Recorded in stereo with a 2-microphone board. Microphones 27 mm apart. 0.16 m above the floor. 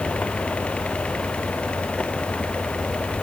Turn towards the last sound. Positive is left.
No sound to turn to.